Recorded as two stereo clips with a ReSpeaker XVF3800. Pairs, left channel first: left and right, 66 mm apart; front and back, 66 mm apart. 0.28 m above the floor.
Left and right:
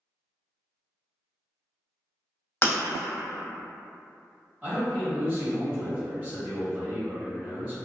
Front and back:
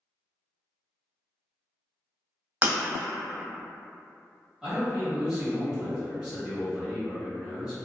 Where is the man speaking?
115° right, 1.4 m.